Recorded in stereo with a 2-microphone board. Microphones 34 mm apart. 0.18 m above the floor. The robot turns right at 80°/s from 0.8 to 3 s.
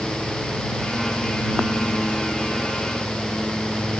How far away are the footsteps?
I don't hear footsteps.